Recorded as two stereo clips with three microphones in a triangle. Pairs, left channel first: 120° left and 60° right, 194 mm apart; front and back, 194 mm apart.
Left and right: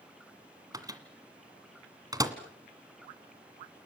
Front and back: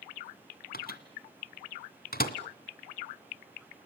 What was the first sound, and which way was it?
A microwave, 5° left.